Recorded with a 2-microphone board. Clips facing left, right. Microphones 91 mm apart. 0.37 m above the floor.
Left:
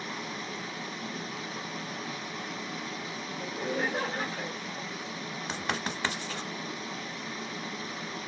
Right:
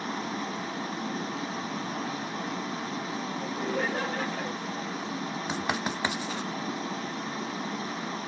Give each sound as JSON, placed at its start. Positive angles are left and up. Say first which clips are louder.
{"t": 0.0, "sound": "running water", "louder": "right 5 dB", "side_deg": -35, "distance_m": 0.9}
{"t": 3.4, "sound": "laughter", "louder": "even", "side_deg": 15, "distance_m": 1.0}
{"t": 5.5, "sound": "writing", "louder": "right 2 dB", "side_deg": -10, "distance_m": 0.6}